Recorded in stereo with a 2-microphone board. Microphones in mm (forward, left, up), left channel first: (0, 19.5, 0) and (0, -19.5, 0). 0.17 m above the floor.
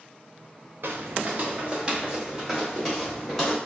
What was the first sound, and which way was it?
Footsteps, 65° right (ahead or behind).